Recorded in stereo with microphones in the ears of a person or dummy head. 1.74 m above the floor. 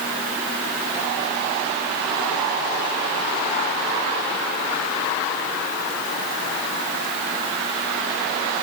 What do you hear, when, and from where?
Only background noise.